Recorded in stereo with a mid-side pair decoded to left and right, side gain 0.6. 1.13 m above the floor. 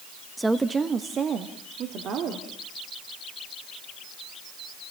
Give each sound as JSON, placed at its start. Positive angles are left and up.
{"t": 0.4, "sound": "a woman speaking", "azimuth_deg": -5, "distance_m": 0.9}